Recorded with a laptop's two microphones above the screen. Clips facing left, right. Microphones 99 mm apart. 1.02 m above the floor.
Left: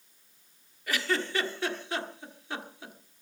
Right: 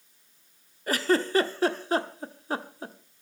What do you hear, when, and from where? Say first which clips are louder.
0.9 s a giggle: right 6 dB; 40° right (ahead or behind), 1.2 m